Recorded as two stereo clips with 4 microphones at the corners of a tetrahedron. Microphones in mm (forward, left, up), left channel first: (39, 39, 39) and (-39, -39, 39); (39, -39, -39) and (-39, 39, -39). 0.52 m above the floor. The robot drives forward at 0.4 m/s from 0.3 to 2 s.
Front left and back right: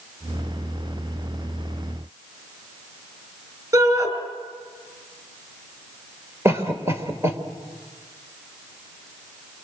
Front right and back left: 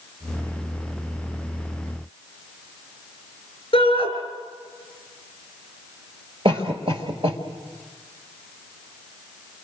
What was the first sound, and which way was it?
A shout, 80° right.